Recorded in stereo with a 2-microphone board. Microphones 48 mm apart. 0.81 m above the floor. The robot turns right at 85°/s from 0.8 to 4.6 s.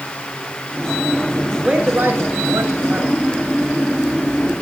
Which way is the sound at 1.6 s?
170° right.